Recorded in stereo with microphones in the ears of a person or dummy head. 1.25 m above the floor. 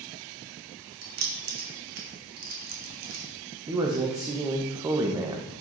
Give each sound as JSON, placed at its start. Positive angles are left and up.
{"t": 1.0, "sound": "keys jangling", "side_deg": -45, "distance_m": 1.7}
{"t": 3.7, "sound": "a man speaking", "side_deg": -15, "distance_m": 0.9}